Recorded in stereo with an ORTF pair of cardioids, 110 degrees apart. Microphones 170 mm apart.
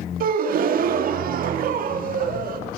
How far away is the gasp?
About 2.5 m.